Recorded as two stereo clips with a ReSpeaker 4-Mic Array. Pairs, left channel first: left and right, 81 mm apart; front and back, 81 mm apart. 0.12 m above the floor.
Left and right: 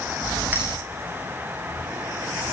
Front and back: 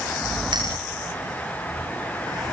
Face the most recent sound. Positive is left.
turn(degrees=-155)